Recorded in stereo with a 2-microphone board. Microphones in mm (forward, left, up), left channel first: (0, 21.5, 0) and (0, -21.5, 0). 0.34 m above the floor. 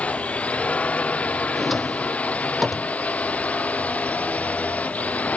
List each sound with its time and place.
0.0 s a drone: 30° left (ahead or behind); by 5.4 s 35° left (ahead or behind)
1.6 s a drawer: centre (ahead or behind)